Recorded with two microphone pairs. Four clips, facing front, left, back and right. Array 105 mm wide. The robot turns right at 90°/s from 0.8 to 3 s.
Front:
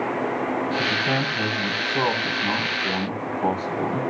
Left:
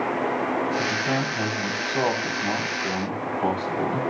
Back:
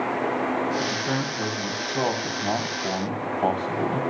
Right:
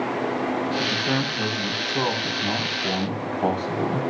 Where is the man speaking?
15° left, 7 m; by 4.0 s 145° right, 7 m.